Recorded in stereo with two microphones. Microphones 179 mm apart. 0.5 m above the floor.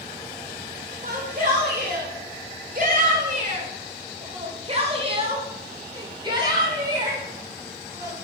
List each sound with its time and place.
1.0 s a shout: 50° right (ahead or behind), 2 m; by 8.2 s 20° right (ahead or behind), 5 m